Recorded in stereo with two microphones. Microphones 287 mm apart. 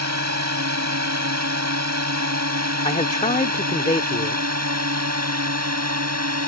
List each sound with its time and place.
0.0 s a drone: 65° right (ahead or behind)
2.9 s a man speaking: 25° left (ahead or behind)